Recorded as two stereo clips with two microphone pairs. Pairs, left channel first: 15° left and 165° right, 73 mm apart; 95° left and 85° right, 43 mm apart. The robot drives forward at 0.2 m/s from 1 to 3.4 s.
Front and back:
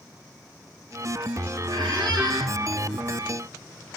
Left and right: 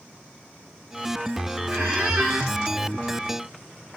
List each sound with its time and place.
1.7 s a squeak: 150° right, 2 m